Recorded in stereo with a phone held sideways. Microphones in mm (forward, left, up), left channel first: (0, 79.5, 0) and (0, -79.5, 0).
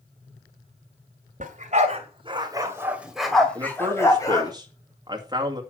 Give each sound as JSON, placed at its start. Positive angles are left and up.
{"t": 1.4, "sound": "a dog barking", "side_deg": -55, "distance_m": 2.0}
{"t": 3.5, "sound": "a man speaking", "side_deg": -25, "distance_m": 2.0}